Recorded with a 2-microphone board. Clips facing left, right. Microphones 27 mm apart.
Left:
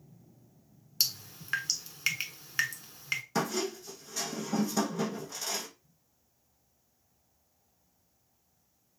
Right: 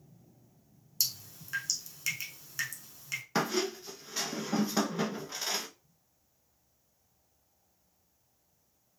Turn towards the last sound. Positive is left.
turn(degrees=-30)  # may be behind; listen again after turning